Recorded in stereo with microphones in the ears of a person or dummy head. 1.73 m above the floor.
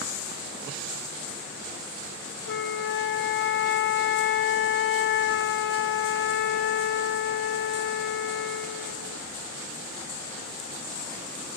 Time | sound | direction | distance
2.5 | a flute | 70° left (ahead or behind) | 0.7 m